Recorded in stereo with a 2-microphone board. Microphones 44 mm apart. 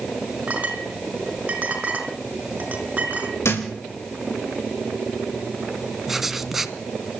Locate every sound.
0.5 s a clink: 35° right (ahead or behind), 5.5 m
3.4 s a thud: 70° left (ahead or behind), 6.5 m
6.1 s writing: 5° right (ahead or behind), 1.5 m